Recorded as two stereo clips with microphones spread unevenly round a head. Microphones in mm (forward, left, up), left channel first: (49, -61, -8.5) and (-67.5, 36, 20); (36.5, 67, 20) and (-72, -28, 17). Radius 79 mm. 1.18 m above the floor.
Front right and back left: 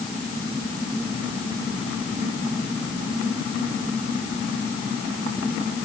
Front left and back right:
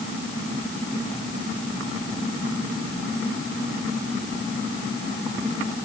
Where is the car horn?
I don't hear a car horn.